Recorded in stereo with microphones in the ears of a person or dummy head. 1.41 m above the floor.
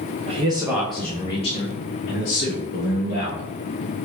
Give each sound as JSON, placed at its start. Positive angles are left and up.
{"t": 0.3, "sound": "a man speaking", "side_deg": -35, "distance_m": 0.8}